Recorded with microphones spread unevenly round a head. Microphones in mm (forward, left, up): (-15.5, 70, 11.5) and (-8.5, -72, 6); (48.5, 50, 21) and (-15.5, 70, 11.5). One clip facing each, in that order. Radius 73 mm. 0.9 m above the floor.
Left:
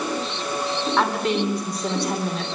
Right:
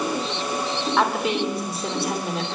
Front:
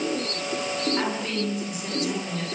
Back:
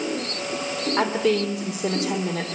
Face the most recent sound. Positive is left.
turn(degrees=-175)